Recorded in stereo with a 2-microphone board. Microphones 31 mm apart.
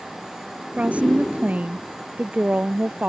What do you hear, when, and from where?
0.8 s a woman speaking: 45° right (ahead or behind); by 3.1 s 50° right (ahead or behind)